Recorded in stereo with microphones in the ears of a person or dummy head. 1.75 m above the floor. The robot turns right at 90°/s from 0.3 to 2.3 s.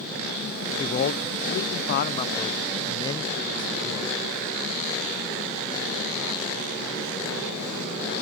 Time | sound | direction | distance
0.8 | a man speaking | 20° left | ?